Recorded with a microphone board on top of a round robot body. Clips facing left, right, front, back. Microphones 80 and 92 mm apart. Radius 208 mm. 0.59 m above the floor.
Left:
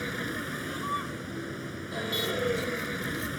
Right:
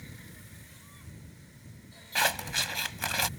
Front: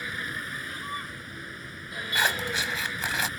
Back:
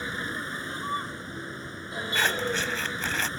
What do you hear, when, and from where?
0.0 s a vehicle: 115° left
2.1 s scissors: 80° right